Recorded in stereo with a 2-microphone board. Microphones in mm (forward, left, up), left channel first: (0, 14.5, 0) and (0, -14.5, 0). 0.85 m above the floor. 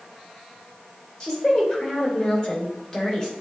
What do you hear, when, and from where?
1.2 s a woman speaking: 20° left (ahead or behind), 3 m